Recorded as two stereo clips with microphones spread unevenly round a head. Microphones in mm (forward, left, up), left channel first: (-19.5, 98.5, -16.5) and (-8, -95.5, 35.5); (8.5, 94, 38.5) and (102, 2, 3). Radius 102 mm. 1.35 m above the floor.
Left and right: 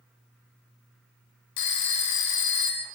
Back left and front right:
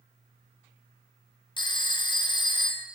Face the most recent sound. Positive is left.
turn(degrees=85)